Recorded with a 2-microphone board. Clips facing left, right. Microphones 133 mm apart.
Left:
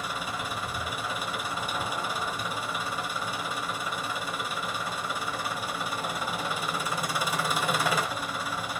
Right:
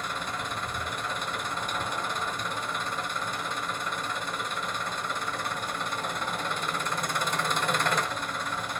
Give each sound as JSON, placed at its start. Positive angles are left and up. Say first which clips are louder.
{"t": 0.0, "sound": "an engine running", "louder": "even", "side_deg": 5, "distance_m": 1.2}